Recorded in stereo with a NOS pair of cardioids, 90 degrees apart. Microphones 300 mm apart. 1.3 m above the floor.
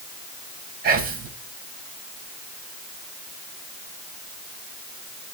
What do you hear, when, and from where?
0.8 s whispering: 45° right, 0.8 m